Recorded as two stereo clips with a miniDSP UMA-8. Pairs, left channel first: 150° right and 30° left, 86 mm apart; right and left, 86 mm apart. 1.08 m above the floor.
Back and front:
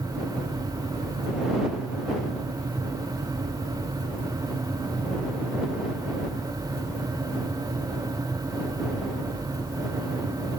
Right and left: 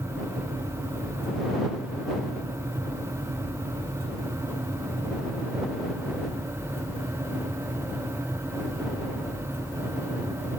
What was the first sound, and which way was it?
Only background noise.